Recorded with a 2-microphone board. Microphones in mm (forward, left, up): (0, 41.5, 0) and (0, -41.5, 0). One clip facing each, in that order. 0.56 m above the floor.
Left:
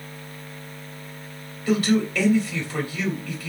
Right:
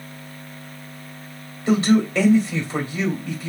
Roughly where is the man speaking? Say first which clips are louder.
Right 3 dB; right.